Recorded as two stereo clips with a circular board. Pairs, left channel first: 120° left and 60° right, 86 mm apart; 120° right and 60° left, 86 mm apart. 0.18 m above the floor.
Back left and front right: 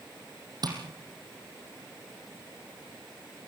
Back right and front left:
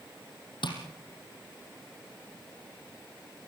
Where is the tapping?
100° right, 4.5 m.